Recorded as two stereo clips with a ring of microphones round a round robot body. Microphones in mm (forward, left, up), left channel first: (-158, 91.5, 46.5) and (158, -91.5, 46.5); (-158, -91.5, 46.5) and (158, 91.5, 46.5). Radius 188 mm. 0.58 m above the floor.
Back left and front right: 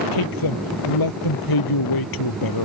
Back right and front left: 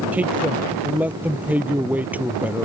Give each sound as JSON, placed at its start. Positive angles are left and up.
{"t": 0.1, "sound": "a man speaking", "azimuth_deg": 115}